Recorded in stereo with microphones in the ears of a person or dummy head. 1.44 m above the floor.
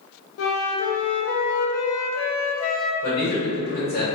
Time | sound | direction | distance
0.4 | a flute | 75° left (ahead or behind) | 0.6 m
3.0 | a man speaking | 45° left (ahead or behind) | 1.2 m